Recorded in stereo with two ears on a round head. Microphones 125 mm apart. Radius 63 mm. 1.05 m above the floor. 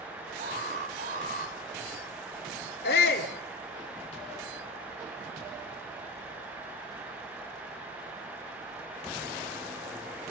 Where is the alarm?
55° right (ahead or behind), 2.5 m.